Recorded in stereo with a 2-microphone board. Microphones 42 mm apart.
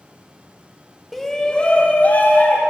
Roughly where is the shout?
Centre.